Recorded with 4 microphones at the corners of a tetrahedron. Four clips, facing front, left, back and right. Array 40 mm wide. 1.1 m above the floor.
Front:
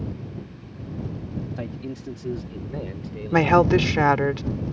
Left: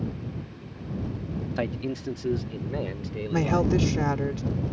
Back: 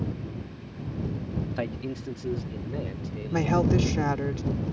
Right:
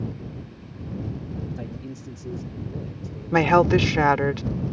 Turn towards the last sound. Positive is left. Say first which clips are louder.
# right 7 dB, front 7 dB
turn(degrees=-50)